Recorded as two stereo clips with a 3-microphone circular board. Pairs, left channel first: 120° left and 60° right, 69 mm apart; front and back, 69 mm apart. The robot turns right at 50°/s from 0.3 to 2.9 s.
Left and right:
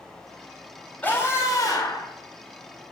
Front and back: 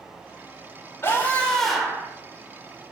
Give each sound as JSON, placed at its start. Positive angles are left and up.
{"t": 1.0, "sound": "a scream", "azimuth_deg": 55, "distance_m": 5.5}